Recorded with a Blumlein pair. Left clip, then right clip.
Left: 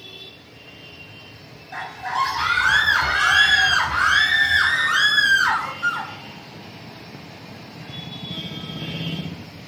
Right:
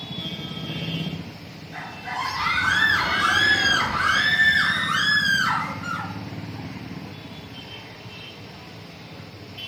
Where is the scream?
55° left, 1.4 m.